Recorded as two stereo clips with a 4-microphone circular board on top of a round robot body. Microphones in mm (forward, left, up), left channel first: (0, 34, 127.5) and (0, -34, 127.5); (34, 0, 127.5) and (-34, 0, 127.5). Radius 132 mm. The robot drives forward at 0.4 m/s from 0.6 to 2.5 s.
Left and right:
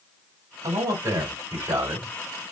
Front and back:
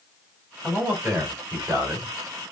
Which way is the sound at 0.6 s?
95° right.